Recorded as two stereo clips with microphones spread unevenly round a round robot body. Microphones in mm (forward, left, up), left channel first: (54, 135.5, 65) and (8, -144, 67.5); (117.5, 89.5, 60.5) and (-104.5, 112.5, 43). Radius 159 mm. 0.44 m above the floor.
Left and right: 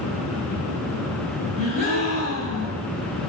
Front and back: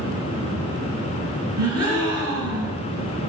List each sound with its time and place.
1.6 s a gasp: 170° right, 2 m